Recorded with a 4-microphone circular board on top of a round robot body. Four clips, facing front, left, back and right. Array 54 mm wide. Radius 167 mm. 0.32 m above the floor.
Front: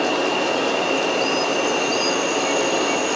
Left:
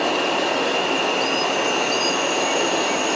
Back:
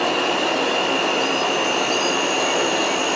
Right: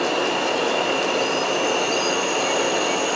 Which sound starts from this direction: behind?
An insect, at 0.0 s.